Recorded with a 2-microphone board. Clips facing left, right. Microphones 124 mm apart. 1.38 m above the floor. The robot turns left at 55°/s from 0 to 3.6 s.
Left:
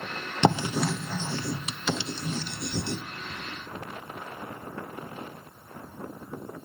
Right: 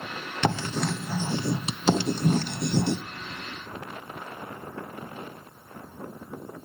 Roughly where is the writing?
Left.